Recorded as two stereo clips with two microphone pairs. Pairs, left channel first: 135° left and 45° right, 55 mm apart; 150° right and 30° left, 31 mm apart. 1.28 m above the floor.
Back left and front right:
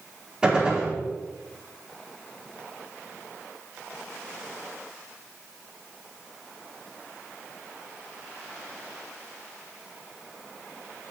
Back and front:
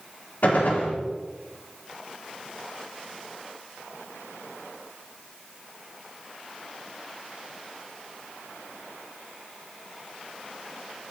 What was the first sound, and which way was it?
A gunshot, 120° right.